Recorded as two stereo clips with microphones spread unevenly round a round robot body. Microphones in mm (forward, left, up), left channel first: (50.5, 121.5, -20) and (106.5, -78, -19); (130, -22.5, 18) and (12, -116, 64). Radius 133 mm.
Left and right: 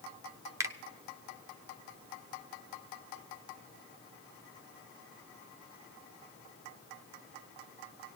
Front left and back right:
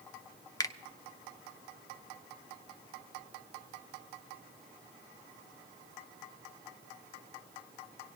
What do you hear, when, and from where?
0.6 s a finger snap: straight ahead, 0.6 m